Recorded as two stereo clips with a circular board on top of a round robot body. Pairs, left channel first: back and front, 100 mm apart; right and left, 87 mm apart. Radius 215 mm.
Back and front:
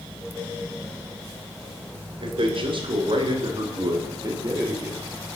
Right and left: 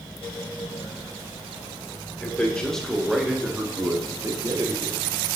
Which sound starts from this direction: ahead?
A man speaking, at 2.2 s.